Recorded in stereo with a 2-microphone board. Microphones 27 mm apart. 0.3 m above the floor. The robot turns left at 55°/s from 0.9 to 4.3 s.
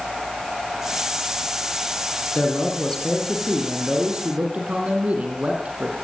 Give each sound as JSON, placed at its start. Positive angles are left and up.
{"t": 2.4, "sound": "a man speaking", "azimuth_deg": 60, "distance_m": 8.5}